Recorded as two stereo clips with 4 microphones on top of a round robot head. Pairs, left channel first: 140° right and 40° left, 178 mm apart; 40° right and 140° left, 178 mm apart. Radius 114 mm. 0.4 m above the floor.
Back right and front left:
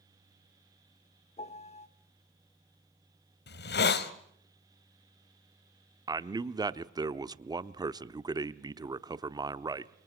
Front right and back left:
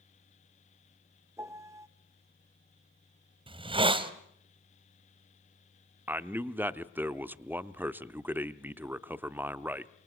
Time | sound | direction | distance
1.4 | a piano | 155° right | 1.0 m
3.5 | a hiss | 160° right | 1.5 m
6.1 | a man speaking | 75° left | 0.9 m